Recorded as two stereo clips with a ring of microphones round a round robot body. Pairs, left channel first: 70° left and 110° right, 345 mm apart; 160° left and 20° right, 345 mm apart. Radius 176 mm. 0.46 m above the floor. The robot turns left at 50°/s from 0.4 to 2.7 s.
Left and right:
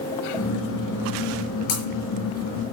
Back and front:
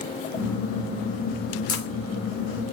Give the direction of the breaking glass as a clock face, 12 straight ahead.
9 o'clock.